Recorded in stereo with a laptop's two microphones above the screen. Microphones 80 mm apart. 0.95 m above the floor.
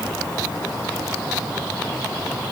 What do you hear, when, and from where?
Only background noise.